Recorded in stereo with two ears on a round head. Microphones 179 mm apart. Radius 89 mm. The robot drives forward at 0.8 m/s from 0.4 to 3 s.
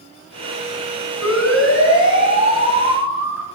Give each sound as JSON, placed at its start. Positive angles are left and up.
{"t": 1.2, "sound": "a siren", "side_deg": 80, "distance_m": 6.0}